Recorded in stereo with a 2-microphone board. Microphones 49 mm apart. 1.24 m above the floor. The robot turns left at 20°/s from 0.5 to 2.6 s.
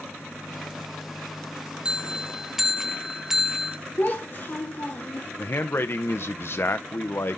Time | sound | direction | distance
1.9 | a bell | 20° right (ahead or behind) | 0.5 m
4.0 | a child speaking | 45° left (ahead or behind) | 1.6 m
5.4 | a man speaking | 55° left (ahead or behind) | 0.6 m